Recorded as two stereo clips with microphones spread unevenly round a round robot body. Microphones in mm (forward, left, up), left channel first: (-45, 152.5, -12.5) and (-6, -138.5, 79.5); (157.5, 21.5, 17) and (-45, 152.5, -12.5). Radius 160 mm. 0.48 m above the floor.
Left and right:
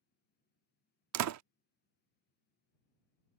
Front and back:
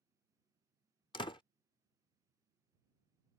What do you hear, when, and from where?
1.1 s a door slam: 105° right